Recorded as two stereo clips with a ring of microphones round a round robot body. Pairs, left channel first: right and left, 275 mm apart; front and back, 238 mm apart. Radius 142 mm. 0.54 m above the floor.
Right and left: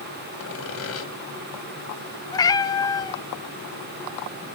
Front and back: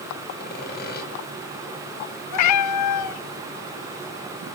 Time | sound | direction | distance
0.4 | sawing | 55° right | 3.5 m
2.3 | a cat meowing | 15° right | 0.7 m